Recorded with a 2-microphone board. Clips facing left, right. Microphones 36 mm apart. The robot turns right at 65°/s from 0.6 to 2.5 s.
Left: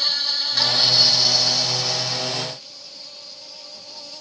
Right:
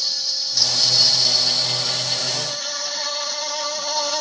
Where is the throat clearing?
I don't hear throat clearing.